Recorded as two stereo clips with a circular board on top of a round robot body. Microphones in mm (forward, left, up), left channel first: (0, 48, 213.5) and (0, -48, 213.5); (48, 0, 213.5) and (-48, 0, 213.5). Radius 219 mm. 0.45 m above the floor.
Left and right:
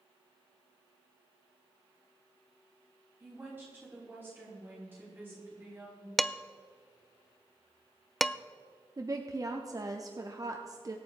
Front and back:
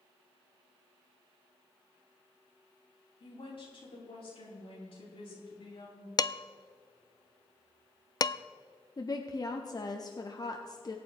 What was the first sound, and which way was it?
A woman speaking, 20° right.